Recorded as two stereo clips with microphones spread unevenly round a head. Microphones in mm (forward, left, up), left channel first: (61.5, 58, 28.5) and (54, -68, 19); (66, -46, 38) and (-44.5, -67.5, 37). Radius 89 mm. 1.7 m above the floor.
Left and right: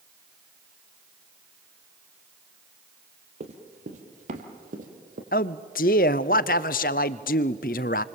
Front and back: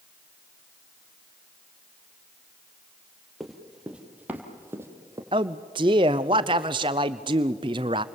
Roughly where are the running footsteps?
Right.